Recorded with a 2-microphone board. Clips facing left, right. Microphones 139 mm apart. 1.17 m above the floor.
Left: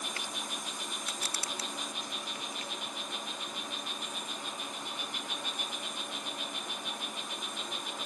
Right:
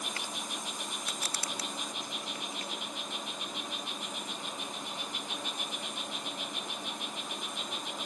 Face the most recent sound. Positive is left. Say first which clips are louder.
# right 1 dB
turn(degrees=-25)  # may be behind; listen again after turning